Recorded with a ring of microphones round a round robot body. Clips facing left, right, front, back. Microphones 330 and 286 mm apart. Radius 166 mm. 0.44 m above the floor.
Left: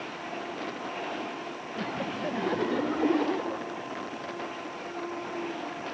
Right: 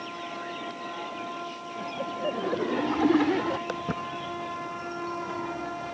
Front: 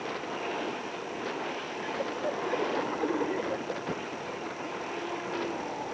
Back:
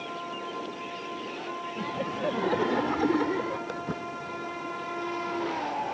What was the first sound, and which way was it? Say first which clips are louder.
Laughter: left 1 dB, back 3 dB; 145° left.